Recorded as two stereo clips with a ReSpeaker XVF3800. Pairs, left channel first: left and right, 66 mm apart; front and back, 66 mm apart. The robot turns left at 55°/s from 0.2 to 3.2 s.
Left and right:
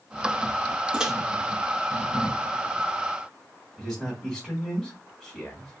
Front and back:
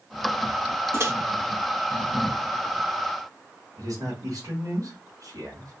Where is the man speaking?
Straight behind, 1.5 m.